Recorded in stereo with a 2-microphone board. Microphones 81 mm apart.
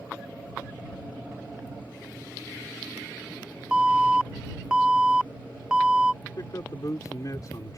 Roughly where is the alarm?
Centre.